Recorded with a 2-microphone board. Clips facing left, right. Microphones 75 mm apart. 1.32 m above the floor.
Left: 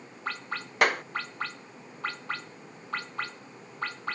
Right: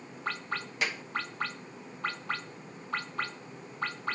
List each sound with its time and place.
0.8 s a clap: 60° left (ahead or behind)